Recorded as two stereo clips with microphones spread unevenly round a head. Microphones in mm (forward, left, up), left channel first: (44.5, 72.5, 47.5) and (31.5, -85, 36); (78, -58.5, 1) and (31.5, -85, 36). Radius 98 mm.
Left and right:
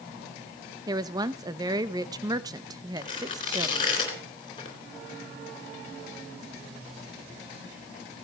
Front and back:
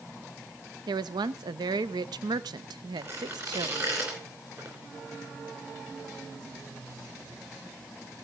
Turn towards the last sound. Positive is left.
turn(degrees=150)